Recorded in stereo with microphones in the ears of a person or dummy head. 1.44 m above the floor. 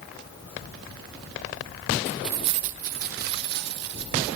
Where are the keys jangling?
20° left (ahead or behind), 0.5 m; by 4.4 s 60° right (ahead or behind), 3 m.